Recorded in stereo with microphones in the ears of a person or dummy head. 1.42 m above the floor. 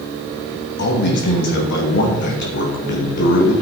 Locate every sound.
0.8 s a man speaking: 55° left (ahead or behind), 2.5 m